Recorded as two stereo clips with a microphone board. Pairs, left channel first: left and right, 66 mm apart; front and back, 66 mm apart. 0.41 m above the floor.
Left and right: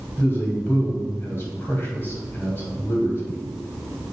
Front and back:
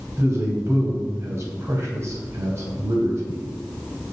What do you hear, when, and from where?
0.2 s a man speaking: 145° left, 2.5 m